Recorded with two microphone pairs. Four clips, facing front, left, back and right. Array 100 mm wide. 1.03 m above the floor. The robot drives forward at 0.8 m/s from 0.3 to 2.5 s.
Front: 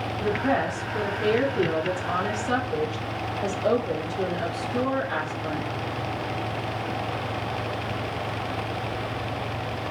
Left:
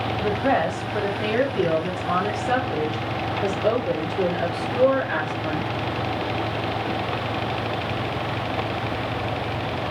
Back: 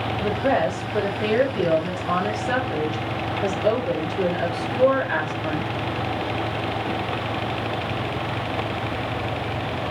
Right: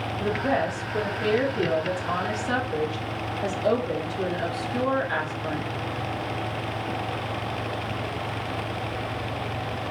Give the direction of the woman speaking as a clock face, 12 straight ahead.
9 o'clock.